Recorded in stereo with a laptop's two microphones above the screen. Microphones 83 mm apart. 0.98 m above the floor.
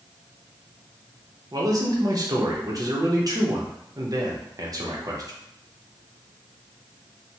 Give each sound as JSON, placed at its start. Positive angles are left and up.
{"t": 1.5, "sound": "a man speaking", "side_deg": -45, "distance_m": 0.7}